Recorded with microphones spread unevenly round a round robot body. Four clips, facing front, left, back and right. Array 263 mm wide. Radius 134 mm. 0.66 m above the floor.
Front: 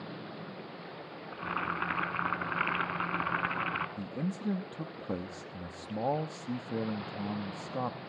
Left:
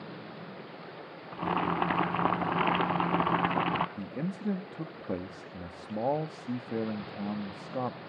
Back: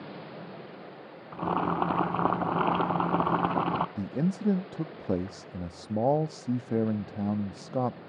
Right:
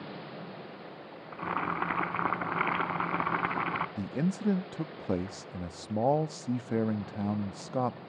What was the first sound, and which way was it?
Boiling, 165° left.